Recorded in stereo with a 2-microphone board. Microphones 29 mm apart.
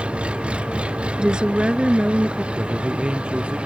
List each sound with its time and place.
0.0 s an engine running: 40° right (ahead or behind)
1.2 s a woman speaking: 30° right (ahead or behind)
2.5 s a man speaking: 35° right (ahead or behind)